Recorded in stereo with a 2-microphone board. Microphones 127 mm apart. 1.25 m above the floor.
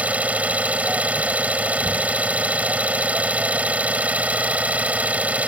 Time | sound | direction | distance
0.0 | an engine running | 10° right (ahead or behind) | ?